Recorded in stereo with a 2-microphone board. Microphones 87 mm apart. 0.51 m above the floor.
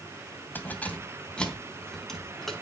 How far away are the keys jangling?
About 2.5 m.